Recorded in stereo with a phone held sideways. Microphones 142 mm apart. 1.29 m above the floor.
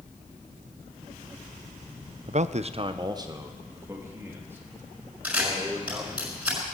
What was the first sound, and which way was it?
A man speaking, 45° right (ahead or behind).